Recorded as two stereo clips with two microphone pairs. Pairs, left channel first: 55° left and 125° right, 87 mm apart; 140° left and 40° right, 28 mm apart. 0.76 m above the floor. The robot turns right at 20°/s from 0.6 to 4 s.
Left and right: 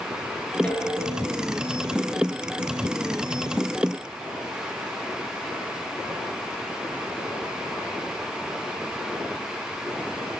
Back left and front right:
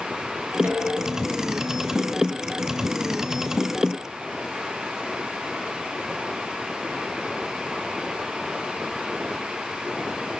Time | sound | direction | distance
0.6 | dishes clattering | 20° right | 8 m